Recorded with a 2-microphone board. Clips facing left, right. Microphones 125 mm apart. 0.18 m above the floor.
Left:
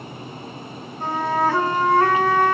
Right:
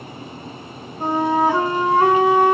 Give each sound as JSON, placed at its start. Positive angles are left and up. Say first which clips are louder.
{"t": 1.0, "sound": "a flute", "louder": "right 3 dB", "side_deg": -15, "distance_m": 0.6}